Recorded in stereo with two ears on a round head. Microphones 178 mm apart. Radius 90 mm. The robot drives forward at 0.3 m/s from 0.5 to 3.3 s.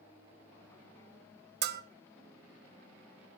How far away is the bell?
About 0.6 m.